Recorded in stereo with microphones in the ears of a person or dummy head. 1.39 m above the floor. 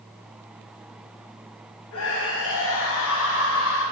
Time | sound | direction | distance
1.9 | a scream | 70° left (ahead or behind) | 8 m